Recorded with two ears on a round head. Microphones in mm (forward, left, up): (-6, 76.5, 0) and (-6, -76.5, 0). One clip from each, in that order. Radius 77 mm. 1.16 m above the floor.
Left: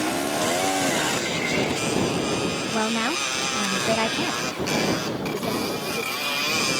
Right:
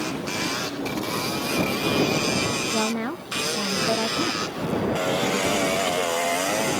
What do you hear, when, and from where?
2.7 s a woman speaking: 35° left (ahead or behind); by 6.3 s 30° left (ahead or behind)